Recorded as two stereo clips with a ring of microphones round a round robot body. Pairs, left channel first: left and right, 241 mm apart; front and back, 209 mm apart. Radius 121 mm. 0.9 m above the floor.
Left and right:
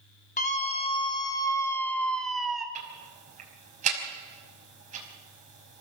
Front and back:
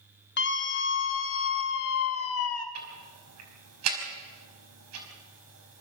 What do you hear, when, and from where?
0.4 s a scream: 30° left, 2.5 m; by 2.6 s straight ahead, 3 m
2.8 s ticking: 150° right, 5 m